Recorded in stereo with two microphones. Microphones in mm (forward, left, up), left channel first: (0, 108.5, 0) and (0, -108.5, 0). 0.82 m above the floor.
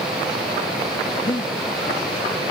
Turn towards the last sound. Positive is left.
turn(degrees=25)  # may be behind; listen again after turning